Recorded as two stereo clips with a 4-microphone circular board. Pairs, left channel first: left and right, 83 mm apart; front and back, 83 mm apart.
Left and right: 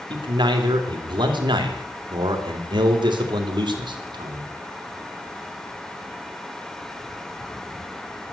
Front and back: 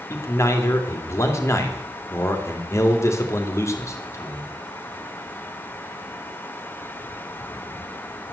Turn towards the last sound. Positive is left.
turn(degrees=-60)